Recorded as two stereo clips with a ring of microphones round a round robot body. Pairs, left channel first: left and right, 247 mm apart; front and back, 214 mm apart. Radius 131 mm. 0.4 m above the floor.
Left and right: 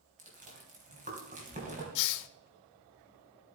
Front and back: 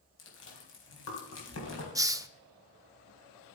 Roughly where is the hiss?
Left.